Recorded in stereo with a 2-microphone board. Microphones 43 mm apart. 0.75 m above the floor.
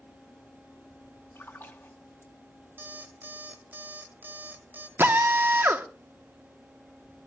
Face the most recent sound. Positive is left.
turn(degrees=-60)  # may be behind; listen again after turning